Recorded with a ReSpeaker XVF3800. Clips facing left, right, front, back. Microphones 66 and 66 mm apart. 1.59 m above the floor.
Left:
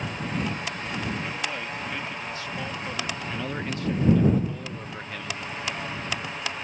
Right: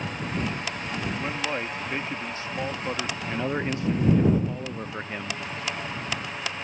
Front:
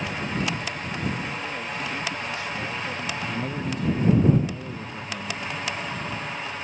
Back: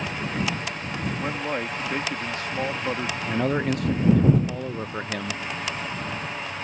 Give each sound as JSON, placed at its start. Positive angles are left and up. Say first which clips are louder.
{"t": 1.2, "sound": "a man speaking", "louder": "right 2 dB, back 4 dB", "azimuth_deg": -150}
{"t": 3.3, "sound": "a man speaking", "louder": "right 4 dB, back 6 dB", "azimuth_deg": -155}